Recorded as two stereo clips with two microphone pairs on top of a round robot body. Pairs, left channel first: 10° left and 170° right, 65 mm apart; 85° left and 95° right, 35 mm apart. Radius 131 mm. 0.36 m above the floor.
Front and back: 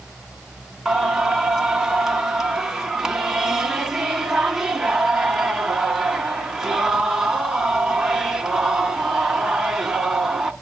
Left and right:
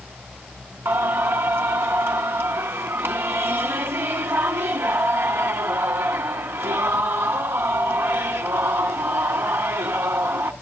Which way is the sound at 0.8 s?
85° right.